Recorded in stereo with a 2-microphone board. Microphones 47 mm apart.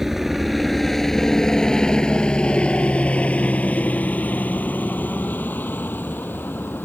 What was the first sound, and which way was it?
A helicopter, 5° right (ahead or behind).